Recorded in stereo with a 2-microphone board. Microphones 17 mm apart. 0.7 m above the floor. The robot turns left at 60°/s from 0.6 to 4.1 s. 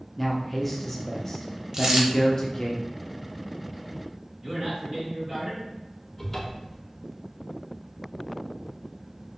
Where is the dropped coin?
35° right (ahead or behind), 0.5 m; by 2.1 s 40° right (ahead or behind), 0.5 m.